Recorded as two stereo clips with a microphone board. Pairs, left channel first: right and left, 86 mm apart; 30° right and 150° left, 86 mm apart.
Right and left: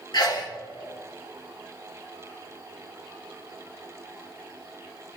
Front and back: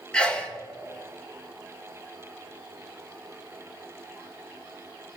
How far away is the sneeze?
About 1.5 m.